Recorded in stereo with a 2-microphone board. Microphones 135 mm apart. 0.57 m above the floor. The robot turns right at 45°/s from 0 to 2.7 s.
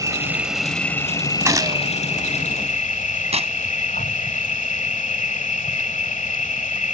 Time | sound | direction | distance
0.0 | an insect | 30° right | ?
1.4 | a gunshot | 25° right (ahead or behind) | ?
3.3 | tearing paper | 55° right (ahead or behind) | ?